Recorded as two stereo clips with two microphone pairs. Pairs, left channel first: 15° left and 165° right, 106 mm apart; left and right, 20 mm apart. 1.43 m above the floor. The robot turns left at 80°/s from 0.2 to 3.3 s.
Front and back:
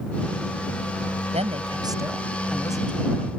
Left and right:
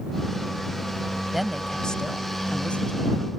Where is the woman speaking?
175° right; by 3.3 s 30° left.